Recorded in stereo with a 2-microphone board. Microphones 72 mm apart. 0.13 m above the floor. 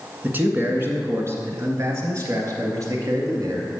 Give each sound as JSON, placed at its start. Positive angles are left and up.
{"t": 0.2, "sound": "a man speaking", "side_deg": -25, "distance_m": 1.5}